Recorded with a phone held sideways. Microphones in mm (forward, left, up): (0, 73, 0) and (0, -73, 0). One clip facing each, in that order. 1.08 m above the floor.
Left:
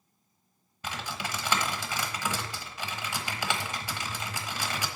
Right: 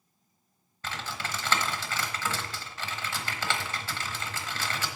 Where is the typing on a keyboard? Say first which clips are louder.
Left 1 dB; 15° left (ahead or behind), 1.1 m.